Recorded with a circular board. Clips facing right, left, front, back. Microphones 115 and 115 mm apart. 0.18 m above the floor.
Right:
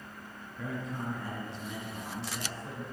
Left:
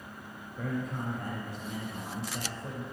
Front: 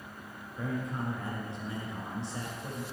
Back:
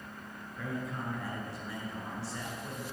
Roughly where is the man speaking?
Ahead left.